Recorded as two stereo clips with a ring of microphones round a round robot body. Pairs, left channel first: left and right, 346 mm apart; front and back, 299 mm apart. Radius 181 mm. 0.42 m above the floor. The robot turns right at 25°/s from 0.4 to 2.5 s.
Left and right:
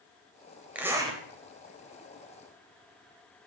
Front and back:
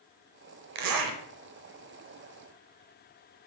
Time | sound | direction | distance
0.8 | a zipper | 175° right | 0.8 m